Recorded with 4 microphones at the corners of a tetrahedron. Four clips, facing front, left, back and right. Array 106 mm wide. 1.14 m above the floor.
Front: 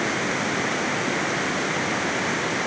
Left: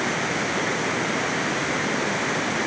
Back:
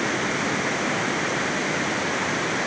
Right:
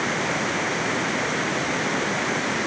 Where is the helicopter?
I don't hear a helicopter.